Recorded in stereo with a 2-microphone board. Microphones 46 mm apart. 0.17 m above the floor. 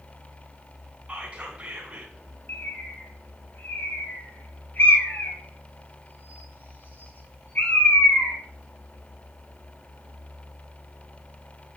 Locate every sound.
1.1 s whispering: 25° right (ahead or behind), 1.2 m
2.5 s a bird: 45° left (ahead or behind), 1.9 m